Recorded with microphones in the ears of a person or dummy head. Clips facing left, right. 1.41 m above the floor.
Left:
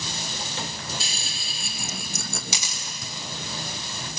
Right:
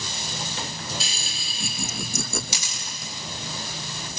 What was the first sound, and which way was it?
Laughter, 60° right (ahead or behind).